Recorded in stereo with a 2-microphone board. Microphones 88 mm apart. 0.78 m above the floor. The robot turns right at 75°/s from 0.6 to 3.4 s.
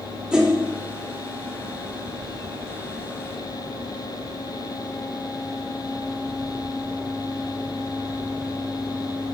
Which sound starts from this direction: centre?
A whoosh, at 0.3 s.